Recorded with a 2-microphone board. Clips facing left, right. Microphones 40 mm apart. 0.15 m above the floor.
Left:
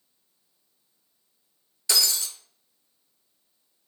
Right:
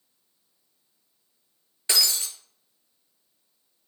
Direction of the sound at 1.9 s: 30° right (ahead or behind).